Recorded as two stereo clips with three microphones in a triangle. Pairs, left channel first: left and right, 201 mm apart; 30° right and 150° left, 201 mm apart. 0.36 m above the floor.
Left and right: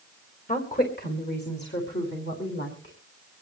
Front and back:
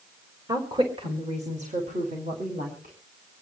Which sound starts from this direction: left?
A woman speaking, at 0.5 s.